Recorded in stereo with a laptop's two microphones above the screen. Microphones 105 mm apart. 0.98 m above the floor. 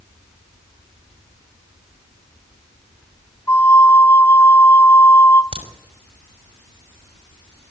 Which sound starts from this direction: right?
A crack, at 5.5 s.